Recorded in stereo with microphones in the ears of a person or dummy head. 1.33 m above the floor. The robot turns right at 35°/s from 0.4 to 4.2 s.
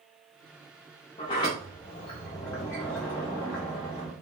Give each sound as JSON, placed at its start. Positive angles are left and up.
{"t": 1.2, "sound": "a sliding door", "side_deg": 20, "distance_m": 0.7}